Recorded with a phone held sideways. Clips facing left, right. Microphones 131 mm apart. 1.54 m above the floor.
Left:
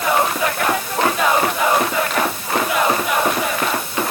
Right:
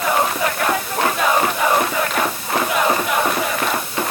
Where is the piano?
I don't hear a piano.